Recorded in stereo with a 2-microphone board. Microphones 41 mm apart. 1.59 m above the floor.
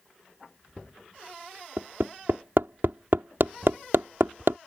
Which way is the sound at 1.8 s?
75° right (ahead or behind).